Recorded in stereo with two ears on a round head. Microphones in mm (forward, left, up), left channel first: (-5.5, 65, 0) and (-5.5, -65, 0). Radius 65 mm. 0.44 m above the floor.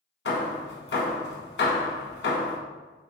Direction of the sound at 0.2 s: 80° left.